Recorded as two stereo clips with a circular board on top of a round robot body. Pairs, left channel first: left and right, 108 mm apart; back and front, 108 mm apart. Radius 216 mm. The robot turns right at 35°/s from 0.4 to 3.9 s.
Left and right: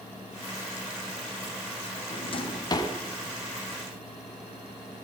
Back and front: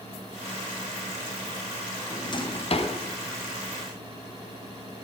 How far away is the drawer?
About 3 m.